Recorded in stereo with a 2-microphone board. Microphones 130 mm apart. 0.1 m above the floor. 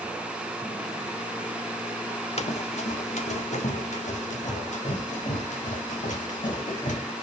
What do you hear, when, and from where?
2.4 s running footsteps: 55° left (ahead or behind), 0.9 m; by 7.0 s 70° left (ahead or behind), 6 m